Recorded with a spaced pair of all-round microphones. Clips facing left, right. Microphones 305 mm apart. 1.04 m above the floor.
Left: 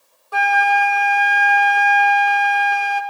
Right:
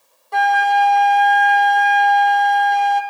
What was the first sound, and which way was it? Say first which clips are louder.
A flute: right 2 dB; 5° left (ahead or behind).